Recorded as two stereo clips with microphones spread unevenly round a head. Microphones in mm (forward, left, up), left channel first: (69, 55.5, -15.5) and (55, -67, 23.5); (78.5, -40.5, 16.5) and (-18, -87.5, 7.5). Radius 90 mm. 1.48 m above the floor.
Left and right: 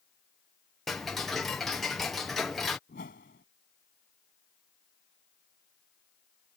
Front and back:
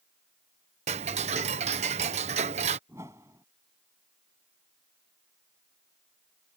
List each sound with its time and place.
0.9 s ticking: 170° left
2.9 s a whoosh: 130° left